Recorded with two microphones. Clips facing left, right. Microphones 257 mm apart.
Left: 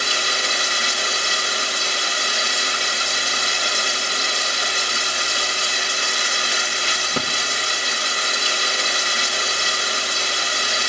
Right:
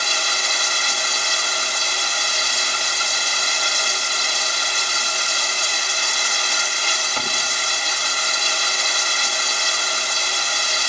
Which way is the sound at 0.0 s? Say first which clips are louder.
Left 3 dB; 65° left (ahead or behind).